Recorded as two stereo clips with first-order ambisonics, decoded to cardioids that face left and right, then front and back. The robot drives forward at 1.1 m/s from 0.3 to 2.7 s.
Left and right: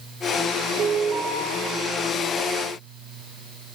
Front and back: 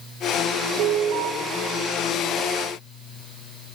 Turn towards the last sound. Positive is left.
turn(degrees=-155)